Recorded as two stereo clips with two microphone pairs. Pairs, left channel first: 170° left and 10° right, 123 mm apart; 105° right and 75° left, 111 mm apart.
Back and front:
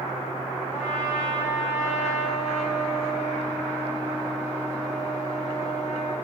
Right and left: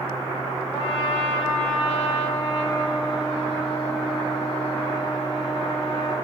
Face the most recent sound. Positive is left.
turn(degrees=-160)